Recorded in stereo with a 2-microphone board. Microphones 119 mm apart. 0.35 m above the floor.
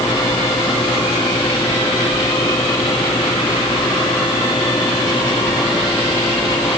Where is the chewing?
I don't hear chewing.